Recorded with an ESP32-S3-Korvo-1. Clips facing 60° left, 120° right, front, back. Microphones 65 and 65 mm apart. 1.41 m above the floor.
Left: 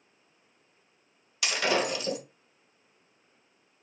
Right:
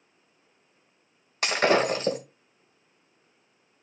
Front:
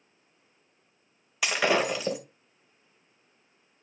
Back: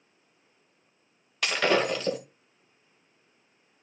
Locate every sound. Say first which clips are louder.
1.4 s breaking glass: right 5 dB, back 1 dB; 80° right, 2 m